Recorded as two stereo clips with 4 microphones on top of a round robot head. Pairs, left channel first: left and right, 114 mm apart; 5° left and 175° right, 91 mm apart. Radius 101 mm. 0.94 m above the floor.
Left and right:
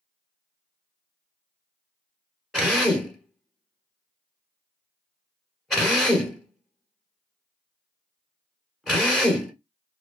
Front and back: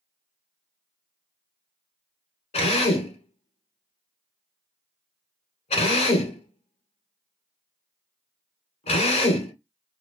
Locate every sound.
2.5 s a drill: straight ahead, 1.2 m